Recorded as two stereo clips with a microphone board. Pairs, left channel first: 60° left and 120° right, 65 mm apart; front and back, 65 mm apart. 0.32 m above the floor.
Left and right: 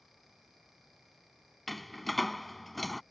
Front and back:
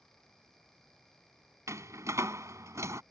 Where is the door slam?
145° left.